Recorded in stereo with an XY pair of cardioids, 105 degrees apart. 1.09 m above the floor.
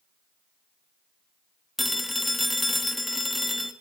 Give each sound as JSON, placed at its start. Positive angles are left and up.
{"t": 1.8, "sound": "a phone ringing", "azimuth_deg": 10, "distance_m": 1.0}